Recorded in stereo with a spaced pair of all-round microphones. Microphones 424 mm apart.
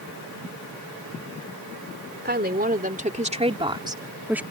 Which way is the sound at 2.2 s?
25° right (ahead or behind).